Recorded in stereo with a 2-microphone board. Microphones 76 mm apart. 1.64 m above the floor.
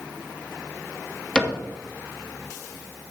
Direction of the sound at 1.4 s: 10° left (ahead or behind).